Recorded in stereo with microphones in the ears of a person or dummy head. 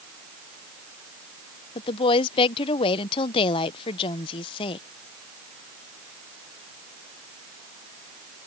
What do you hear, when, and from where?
1.8 s a woman speaking: 30° left (ahead or behind)